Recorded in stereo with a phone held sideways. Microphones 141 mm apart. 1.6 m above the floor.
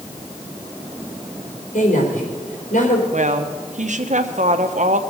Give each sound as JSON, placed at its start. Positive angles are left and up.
{"t": 1.7, "sound": "a woman speaking", "side_deg": 75, "distance_m": 4.5}
{"t": 3.1, "sound": "a woman speaking", "side_deg": -65, "distance_m": 1.1}